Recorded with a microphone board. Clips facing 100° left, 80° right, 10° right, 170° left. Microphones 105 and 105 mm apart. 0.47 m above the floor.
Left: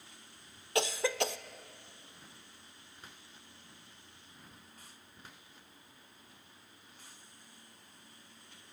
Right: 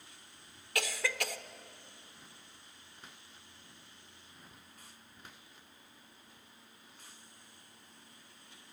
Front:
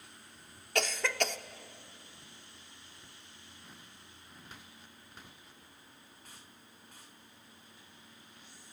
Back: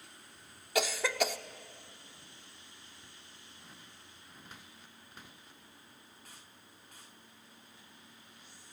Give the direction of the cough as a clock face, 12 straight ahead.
9 o'clock.